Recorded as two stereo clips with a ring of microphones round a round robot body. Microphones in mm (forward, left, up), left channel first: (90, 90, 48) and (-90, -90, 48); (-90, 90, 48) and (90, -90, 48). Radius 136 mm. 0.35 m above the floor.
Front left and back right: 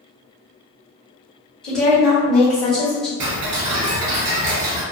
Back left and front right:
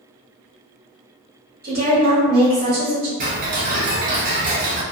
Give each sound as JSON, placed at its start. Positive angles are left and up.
{"t": 1.6, "sound": "a woman speaking", "azimuth_deg": -40, "distance_m": 1.6}
{"t": 3.2, "sound": "ticking", "azimuth_deg": -105, "distance_m": 0.8}